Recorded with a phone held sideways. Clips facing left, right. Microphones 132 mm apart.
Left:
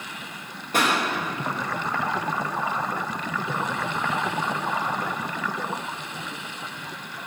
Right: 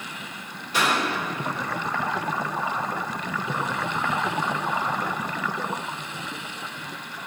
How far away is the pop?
About 1.5 m.